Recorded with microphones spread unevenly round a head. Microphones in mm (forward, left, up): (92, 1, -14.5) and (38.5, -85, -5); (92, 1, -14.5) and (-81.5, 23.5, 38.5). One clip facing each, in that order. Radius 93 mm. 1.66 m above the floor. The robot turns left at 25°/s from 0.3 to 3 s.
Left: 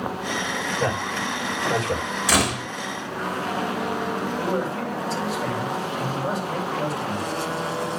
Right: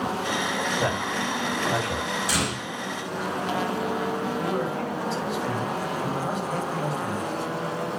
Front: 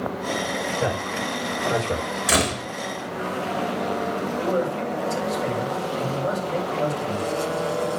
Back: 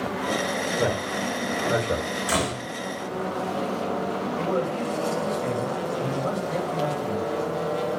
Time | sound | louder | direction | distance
0.8 | a man speaking | left 1 dB, back 2 dB | 140° left | 5.5 m
2.3 | a door slam | left 5 dB, front 4 dB | 60° left | 3 m
4.4 | a man speaking | left 2 dB, front 2 dB | 75° left | 7.5 m